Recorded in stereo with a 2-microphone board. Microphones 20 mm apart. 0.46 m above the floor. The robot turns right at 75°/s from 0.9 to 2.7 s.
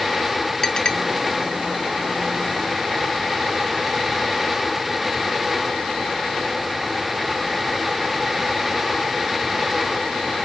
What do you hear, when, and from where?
0.6 s a clink: 40° left (ahead or behind), 1.2 m